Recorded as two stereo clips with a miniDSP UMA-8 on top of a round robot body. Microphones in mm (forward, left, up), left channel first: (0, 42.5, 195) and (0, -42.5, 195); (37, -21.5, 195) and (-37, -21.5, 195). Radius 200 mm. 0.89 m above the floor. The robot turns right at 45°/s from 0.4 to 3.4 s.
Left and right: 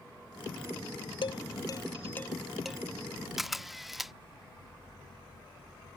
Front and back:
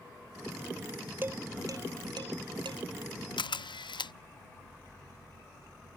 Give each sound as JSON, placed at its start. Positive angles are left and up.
{"t": 1.2, "sound": "dishes clattering", "azimuth_deg": 115}
{"t": 3.4, "sound": "a camera shutter", "azimuth_deg": -5}